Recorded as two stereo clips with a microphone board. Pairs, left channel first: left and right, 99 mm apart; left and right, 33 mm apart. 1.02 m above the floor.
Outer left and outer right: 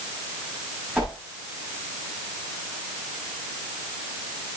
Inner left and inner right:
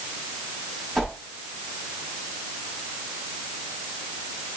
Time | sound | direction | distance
0.9 | a whoosh | 10° right (ahead or behind) | 6 m